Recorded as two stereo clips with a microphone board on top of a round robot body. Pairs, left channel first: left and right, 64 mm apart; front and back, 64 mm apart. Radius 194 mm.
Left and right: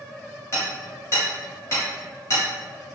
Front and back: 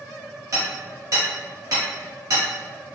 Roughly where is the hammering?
Behind left.